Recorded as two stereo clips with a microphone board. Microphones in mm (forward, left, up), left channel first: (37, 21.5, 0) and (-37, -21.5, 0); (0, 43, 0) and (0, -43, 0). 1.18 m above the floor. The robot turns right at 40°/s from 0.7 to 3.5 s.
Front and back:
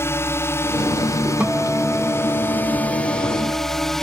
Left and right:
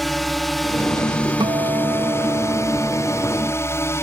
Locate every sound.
0.0 s a drone: straight ahead; by 4.0 s 115° left
1.4 s a guitar: 75° right; by 3.9 s 10° left